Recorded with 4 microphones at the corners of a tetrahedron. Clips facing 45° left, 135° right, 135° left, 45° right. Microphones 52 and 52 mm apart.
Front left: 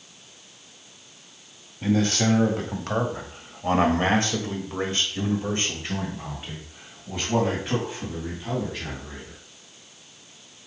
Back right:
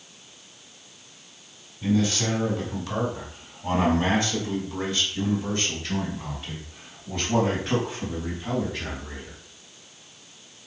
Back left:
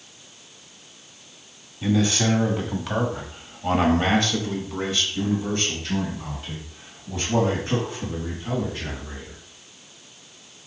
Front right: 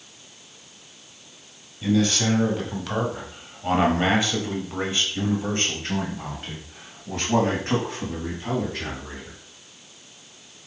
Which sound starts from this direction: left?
A man speaking, at 1.8 s.